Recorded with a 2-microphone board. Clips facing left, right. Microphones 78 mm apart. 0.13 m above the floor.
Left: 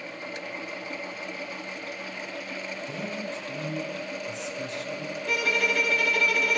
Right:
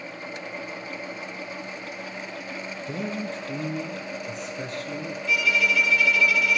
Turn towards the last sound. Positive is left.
turn(degrees=50)  # may be behind; listen again after turning